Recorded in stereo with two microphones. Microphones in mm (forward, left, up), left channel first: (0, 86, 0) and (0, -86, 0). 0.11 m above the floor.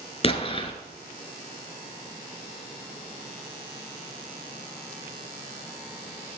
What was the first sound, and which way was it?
An explosion, 35° left (ahead or behind).